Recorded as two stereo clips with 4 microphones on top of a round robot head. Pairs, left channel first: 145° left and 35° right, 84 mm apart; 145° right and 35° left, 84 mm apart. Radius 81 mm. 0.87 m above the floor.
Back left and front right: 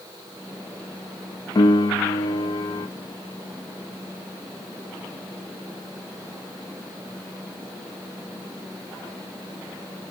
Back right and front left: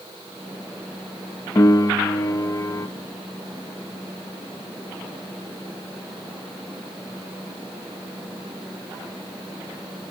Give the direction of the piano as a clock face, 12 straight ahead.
6 o'clock.